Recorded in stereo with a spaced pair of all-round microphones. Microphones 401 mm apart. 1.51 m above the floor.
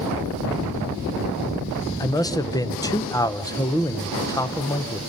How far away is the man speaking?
About 0.7 m.